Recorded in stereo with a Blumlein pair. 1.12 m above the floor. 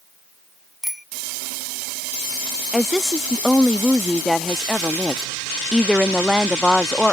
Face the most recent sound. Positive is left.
turn(degrees=0)